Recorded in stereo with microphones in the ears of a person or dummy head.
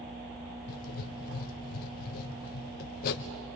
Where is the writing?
50° left (ahead or behind), 0.8 m.